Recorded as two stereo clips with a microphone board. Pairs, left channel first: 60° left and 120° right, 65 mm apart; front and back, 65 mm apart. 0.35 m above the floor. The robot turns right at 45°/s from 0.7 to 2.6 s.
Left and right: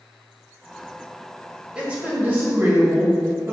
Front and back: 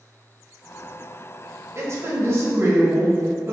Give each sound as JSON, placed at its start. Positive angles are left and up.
{"t": 1.8, "sound": "a woman speaking", "azimuth_deg": 170, "distance_m": 1.7}